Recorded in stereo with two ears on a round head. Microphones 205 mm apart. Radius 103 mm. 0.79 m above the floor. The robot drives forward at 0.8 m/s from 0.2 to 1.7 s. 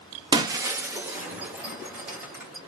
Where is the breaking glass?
20° right (ahead or behind), 0.6 m; by 2.6 s 5° right (ahead or behind), 1.6 m.